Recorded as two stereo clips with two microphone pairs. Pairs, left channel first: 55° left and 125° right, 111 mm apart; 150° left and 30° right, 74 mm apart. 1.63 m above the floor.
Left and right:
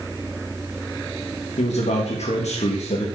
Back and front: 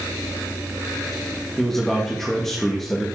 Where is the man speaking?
65° left, 2.5 m.